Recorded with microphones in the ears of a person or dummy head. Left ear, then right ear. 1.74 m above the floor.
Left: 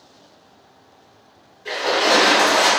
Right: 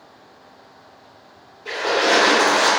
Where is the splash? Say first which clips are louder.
Left 1 dB; 15° left (ahead or behind), 1.2 m.